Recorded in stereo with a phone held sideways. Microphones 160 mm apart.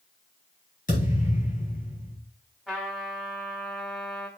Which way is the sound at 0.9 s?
55° left (ahead or behind).